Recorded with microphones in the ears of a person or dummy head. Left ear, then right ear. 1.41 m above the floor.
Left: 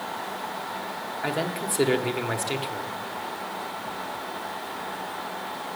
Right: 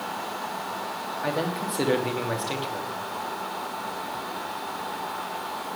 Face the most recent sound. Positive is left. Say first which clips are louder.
# even
turn(degrees=5)  # may be behind; listen again after turning